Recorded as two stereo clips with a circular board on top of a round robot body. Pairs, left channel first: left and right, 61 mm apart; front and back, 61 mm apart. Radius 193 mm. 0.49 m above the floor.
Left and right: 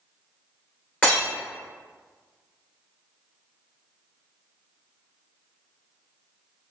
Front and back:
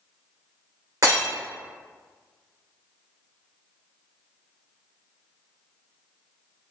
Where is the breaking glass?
155° left, 1.9 m.